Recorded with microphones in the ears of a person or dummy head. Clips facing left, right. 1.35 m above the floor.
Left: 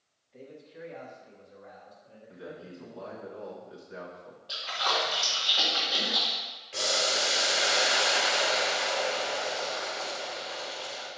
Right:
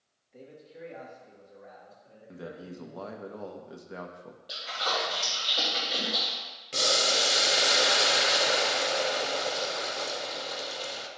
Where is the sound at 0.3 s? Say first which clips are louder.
Left 1 dB; 20° right (ahead or behind), 1.7 m; by 3.1 s 15° right (ahead or behind), 4 m.